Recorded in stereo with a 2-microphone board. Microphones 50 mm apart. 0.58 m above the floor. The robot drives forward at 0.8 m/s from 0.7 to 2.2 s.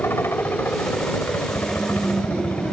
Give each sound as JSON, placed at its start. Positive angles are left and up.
{"t": 0.0, "sound": "a helicopter", "side_deg": 55}